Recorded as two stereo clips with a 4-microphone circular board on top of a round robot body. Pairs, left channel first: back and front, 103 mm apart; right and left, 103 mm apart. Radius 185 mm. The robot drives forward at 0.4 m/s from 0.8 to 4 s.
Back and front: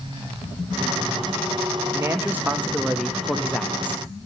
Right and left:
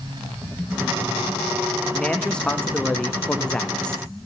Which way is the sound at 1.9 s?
15° right.